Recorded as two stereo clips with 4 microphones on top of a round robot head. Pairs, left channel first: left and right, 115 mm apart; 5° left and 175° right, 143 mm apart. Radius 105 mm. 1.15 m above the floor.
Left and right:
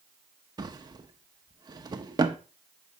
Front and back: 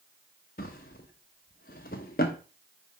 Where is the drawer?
40° right, 0.9 m.